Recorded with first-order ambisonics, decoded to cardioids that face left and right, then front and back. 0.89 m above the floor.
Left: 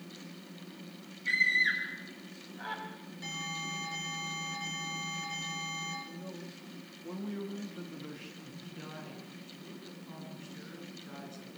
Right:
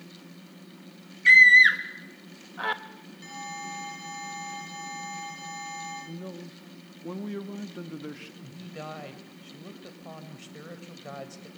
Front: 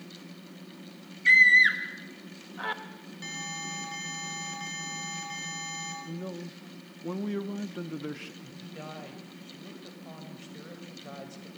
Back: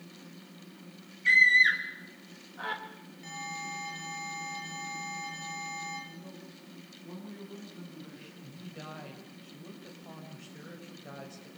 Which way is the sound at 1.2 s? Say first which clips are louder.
Right 13 dB, front 3 dB; 80° right.